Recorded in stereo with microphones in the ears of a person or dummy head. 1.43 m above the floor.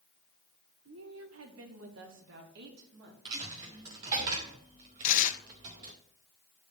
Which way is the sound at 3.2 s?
15° right (ahead or behind).